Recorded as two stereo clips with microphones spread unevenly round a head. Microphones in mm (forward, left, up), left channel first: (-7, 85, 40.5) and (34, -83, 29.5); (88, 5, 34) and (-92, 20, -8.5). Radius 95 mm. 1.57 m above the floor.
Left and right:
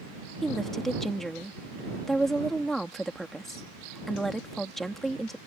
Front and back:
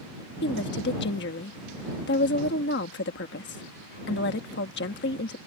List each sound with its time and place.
0.4 s a woman speaking: 15° left